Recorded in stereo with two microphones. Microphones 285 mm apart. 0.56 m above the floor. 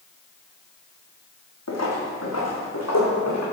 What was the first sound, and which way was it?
Footsteps, 65° left (ahead or behind).